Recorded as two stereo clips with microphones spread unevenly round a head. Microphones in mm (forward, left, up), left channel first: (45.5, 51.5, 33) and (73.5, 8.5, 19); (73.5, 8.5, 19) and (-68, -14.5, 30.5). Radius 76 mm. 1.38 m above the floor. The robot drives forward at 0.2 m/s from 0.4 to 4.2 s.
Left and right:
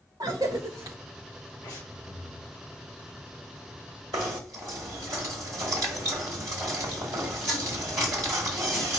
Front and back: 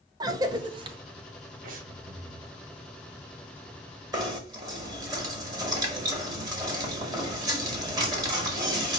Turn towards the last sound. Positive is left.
turn(degrees=-105)